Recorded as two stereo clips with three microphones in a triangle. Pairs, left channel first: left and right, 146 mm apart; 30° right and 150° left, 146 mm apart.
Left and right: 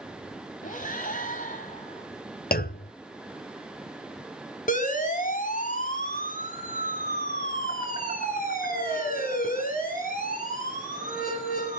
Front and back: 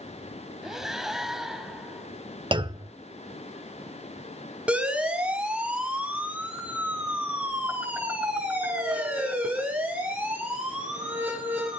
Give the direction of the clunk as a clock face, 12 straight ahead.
9 o'clock.